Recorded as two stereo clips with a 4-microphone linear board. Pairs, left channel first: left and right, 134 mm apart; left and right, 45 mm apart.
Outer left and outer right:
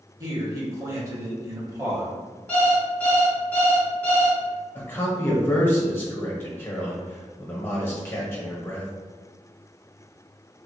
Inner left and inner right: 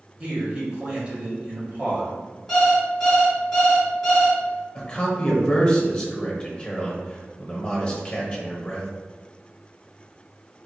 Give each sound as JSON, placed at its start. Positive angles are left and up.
{"t": 0.2, "sound": "a man speaking", "side_deg": -25, "distance_m": 1.2}
{"t": 2.5, "sound": "an alarm clock", "side_deg": 10, "distance_m": 1.4}
{"t": 4.8, "sound": "a man speaking", "side_deg": 15, "distance_m": 1.0}